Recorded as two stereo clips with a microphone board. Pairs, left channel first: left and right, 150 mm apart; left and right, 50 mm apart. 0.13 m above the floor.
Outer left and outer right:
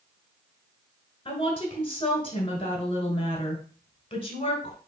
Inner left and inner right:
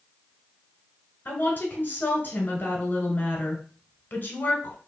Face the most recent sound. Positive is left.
turn(degrees=35)  # may be behind; listen again after turning